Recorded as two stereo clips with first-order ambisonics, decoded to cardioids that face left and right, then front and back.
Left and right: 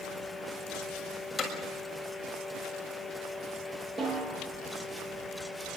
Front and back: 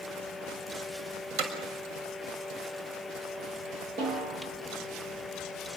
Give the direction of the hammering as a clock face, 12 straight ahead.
6 o'clock.